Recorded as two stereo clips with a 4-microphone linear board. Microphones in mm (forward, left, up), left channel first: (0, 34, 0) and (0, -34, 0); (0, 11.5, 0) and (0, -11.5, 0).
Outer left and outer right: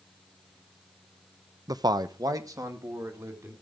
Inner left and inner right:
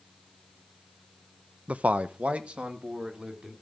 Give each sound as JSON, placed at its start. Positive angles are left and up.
{"t": 1.7, "sound": "a man speaking", "side_deg": -65, "distance_m": 0.6}